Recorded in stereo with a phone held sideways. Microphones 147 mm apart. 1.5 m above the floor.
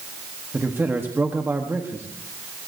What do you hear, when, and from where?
0.5 s a man speaking: 15° right (ahead or behind), 1.1 m